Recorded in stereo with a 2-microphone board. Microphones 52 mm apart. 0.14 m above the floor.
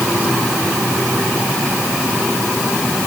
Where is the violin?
I don't hear a violin.